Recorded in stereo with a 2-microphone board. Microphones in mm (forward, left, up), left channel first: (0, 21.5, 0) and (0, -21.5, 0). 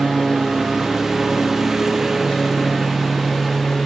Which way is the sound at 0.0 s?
10° right (ahead or behind).